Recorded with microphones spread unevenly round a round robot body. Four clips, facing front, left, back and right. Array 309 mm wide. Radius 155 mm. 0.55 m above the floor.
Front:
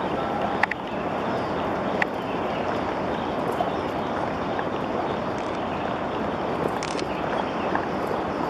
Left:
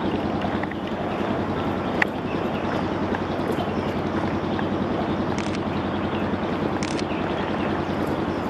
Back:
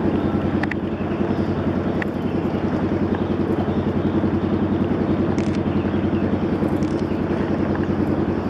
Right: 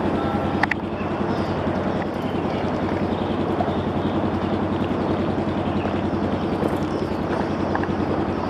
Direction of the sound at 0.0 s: 170° right.